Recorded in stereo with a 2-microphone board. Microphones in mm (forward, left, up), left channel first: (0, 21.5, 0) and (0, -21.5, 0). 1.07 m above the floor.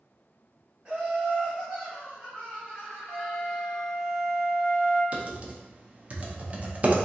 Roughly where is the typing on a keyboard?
Right.